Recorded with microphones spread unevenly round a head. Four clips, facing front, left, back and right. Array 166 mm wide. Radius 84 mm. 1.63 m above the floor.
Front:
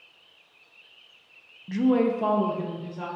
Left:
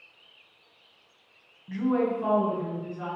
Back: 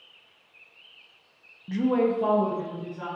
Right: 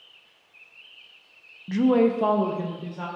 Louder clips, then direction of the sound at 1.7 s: Right 6 dB, front 1 dB; 95° right.